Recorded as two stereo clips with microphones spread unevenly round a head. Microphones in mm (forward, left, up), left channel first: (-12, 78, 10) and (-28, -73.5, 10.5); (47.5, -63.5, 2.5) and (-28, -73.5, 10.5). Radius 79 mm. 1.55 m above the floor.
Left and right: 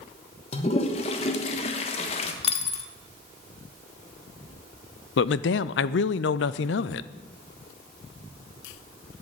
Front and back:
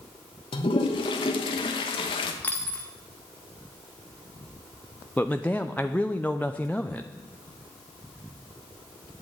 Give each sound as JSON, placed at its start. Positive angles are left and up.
{"t": 0.5, "sound": "a toilet flushing", "azimuth_deg": 30, "distance_m": 1.1}
{"t": 2.4, "sound": "a dropped coin", "azimuth_deg": 80, "distance_m": 1.1}
{"t": 5.2, "sound": "a man speaking", "azimuth_deg": 90, "distance_m": 0.5}